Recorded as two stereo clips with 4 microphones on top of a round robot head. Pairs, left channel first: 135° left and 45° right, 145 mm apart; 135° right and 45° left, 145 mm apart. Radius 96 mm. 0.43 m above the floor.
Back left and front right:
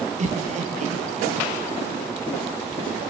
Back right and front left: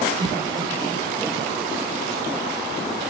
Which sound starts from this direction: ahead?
Laughter, at 0.2 s.